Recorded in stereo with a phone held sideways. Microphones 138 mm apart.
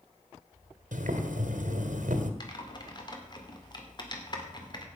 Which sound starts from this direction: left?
Typing on a keyboard, at 2.4 s.